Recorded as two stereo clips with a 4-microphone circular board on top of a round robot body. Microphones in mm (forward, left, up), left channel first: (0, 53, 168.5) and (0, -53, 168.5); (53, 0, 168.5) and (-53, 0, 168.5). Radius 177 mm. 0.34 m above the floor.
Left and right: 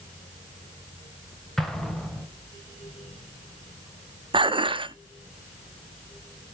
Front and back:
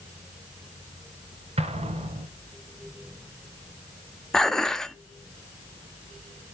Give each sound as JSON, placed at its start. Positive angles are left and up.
{"t": 1.6, "sound": "an explosion", "azimuth_deg": 175, "distance_m": 1.4}
{"t": 4.3, "sound": "dishes clattering", "azimuth_deg": -85, "distance_m": 0.8}